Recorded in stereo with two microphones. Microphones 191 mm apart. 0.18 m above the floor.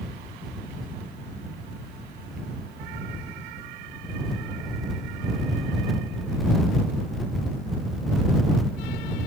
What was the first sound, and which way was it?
Only background noise.